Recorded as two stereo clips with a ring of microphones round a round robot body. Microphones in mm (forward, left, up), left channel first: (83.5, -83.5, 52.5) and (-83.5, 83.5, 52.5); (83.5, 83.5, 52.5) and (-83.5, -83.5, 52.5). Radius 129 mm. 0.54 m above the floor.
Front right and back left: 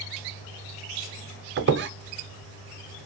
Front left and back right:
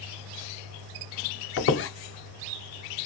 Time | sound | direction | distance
1.6 | a squeak | 90° left | 0.6 m